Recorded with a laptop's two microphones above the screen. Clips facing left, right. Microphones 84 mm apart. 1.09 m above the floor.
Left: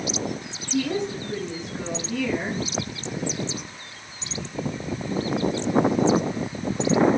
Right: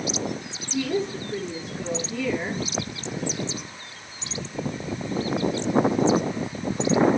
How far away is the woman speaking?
About 10 m.